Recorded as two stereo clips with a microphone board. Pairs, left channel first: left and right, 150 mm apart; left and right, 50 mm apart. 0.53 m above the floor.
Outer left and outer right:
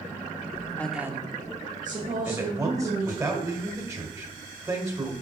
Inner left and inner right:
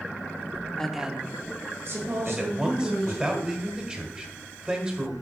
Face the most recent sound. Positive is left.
turn(degrees=-20)  # may be behind; listen again after turning